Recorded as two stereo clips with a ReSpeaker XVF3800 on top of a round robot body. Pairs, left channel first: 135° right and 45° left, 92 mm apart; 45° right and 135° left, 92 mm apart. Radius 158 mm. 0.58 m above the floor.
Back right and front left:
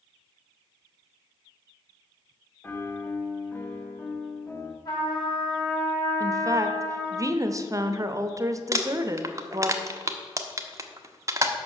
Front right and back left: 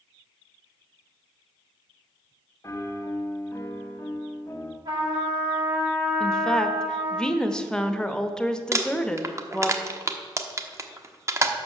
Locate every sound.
2.6 s a piano: 80° right, 1.4 m
4.8 s a trumpet: 175° right, 4.5 m
6.2 s a woman speaking: 30° left, 1.0 m
8.7 s crumpling: 90° left, 1.1 m